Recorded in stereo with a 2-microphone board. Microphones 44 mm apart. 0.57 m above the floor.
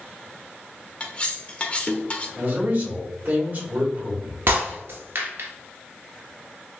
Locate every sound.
1.0 s cutlery clinking: 30° left (ahead or behind), 0.6 m
2.4 s a man speaking: 45° right (ahead or behind), 1.5 m
4.5 s breaking glass: 65° right (ahead or behind), 1.0 m